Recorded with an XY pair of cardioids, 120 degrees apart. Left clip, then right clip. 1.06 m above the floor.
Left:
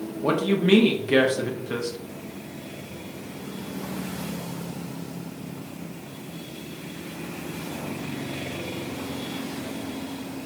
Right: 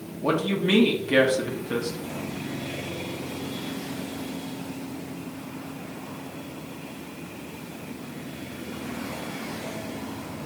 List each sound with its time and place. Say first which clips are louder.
0.2 s a man speaking: left 1 dB; 5° left, 1.0 m